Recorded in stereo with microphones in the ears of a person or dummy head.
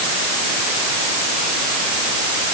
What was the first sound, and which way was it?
Only background noise.